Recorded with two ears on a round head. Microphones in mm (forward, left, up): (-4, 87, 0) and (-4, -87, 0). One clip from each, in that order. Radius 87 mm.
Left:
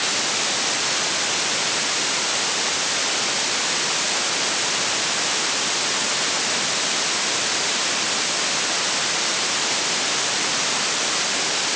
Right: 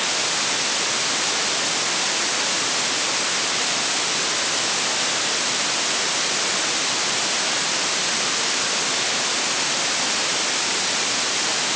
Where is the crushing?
I don't hear crushing.